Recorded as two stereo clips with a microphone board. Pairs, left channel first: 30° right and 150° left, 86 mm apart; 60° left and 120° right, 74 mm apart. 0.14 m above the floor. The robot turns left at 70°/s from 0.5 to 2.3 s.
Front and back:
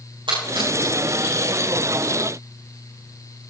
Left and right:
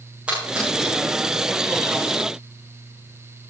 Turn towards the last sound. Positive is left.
turn(degrees=40)